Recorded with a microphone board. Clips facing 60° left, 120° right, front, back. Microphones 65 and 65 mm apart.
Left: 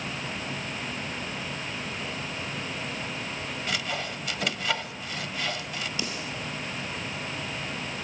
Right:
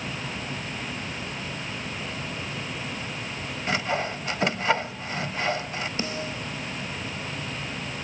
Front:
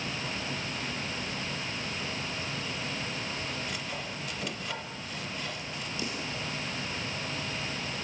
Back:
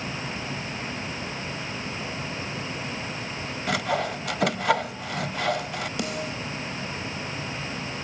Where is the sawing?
Straight behind, 1.1 m.